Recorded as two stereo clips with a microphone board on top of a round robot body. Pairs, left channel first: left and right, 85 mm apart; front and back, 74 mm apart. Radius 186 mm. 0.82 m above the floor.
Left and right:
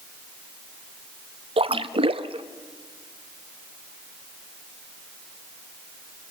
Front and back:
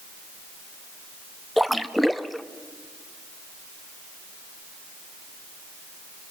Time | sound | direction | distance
1.6 | a splash | 90° right | 0.7 m